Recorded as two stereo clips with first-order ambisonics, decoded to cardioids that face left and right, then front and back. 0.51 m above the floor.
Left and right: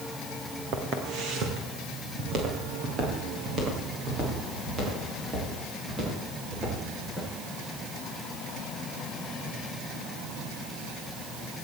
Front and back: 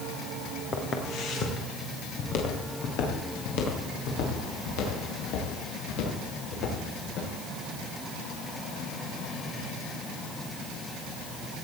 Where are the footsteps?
55° right, 4 m; by 7.3 s 20° right, 12.5 m.